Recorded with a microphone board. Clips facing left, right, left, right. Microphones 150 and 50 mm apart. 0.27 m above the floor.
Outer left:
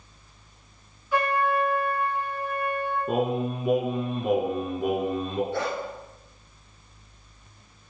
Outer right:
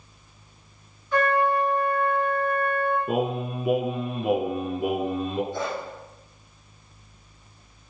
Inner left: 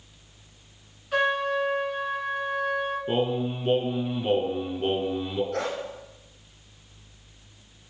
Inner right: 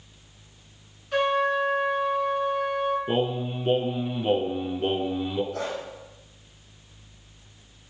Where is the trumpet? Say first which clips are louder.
Outer right 2 dB, inner right 1 dB; 5° left (ahead or behind), 2 m.